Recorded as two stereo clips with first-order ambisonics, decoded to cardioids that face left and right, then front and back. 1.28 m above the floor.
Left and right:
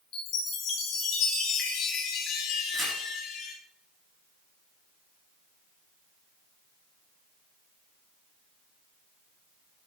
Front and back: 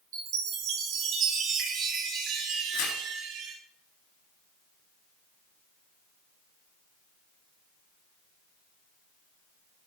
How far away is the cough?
No cough in this recording.